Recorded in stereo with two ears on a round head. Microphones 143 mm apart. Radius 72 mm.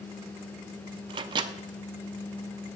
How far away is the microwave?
About 0.5 m.